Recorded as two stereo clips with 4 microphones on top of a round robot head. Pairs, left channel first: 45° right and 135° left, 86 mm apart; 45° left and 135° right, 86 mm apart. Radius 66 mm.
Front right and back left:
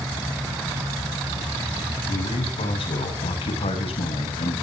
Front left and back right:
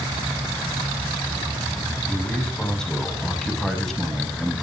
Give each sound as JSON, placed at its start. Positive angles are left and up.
{"t": 2.1, "sound": "a man speaking", "azimuth_deg": -35, "distance_m": 6.0}